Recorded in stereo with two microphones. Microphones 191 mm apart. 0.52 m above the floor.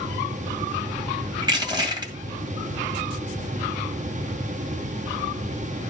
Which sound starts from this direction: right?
Crushing, at 1.4 s.